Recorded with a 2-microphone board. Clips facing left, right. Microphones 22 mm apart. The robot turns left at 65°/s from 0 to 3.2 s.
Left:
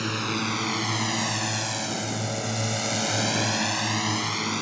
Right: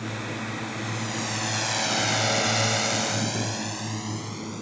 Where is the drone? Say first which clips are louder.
Left 5 dB; 50° left (ahead or behind); by 4.6 s 45° left (ahead or behind).